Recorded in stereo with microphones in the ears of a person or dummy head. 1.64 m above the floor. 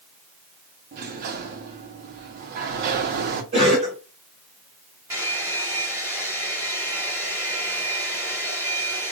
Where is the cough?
35° right (ahead or behind), 2 m.